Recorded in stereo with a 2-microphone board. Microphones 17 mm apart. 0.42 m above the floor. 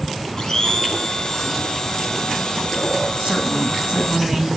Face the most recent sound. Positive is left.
turn(degrees=-55)  # may be behind; listen again after turning